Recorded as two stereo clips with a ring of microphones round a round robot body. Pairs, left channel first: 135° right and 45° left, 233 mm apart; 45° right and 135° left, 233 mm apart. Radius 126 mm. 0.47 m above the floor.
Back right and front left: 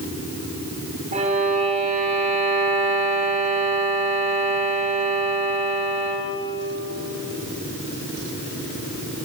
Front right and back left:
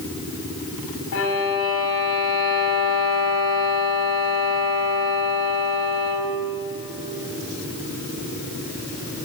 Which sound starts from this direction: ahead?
A violin, at 1.1 s.